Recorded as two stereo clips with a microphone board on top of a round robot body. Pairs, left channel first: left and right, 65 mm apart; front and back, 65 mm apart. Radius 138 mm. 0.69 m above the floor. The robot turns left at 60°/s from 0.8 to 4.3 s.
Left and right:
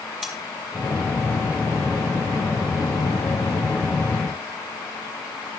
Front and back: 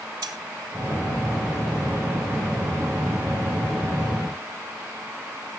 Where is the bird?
No bird in this recording.